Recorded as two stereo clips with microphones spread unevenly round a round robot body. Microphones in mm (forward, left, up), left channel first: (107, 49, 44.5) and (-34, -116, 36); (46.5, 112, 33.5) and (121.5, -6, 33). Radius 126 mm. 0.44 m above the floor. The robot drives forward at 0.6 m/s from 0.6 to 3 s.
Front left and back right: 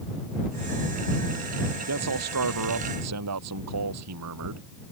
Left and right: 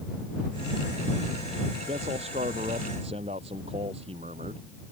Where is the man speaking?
125° right.